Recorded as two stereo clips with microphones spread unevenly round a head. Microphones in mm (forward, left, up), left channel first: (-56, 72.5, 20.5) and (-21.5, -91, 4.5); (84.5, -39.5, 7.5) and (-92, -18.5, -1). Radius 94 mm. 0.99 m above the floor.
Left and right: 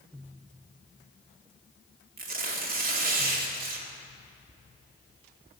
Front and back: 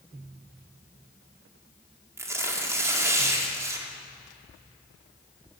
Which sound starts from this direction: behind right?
Tearing paper, at 2.2 s.